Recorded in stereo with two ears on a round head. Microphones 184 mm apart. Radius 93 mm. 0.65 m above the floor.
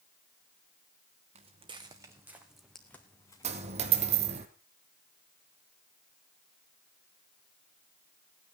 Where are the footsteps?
30° right (ahead or behind), 2 m; by 4.4 s 35° left (ahead or behind), 3 m.